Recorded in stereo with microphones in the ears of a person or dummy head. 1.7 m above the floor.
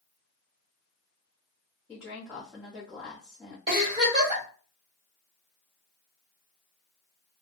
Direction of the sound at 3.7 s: 25° right (ahead or behind).